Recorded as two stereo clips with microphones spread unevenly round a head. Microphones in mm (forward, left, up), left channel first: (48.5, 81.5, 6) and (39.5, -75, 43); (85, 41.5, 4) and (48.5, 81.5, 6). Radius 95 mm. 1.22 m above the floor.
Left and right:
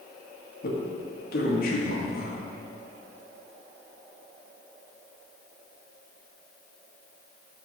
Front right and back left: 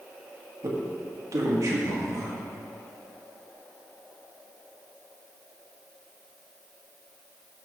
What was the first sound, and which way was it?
A man speaking, 115° left.